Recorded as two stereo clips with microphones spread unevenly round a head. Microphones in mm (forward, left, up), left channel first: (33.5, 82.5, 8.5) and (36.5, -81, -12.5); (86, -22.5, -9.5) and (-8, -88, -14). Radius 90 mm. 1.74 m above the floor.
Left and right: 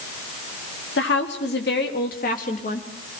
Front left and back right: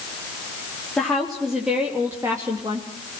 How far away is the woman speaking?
About 4 m.